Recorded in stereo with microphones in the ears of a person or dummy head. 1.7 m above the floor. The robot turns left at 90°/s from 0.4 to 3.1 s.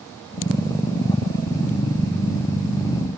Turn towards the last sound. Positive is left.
No sound to turn to.